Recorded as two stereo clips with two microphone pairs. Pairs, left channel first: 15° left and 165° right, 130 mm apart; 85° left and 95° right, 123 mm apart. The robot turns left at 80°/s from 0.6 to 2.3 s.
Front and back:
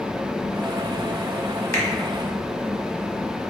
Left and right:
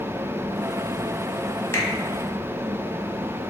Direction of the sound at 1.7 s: 70° left.